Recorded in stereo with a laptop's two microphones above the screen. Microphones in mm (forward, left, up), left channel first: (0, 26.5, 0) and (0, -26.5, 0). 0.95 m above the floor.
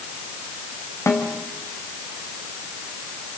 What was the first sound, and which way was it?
A snare drum, 70° left (ahead or behind).